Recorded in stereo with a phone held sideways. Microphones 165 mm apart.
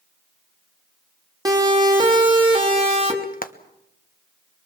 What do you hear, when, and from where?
1.4 s a siren: 20° right (ahead or behind), 3 m; by 3.1 s 40° right (ahead or behind), 3.5 m
3.2 s frying: 60° left (ahead or behind), 1.2 m